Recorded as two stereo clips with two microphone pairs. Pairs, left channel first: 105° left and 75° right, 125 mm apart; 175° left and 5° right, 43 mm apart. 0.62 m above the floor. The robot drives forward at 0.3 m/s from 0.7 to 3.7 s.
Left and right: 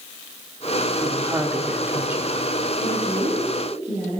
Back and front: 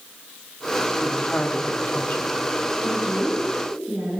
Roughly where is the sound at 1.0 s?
Behind right.